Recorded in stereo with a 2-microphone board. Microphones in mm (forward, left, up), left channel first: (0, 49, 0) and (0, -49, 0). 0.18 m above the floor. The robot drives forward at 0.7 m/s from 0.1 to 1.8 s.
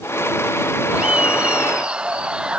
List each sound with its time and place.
0.9 s laughter: 10° right (ahead or behind)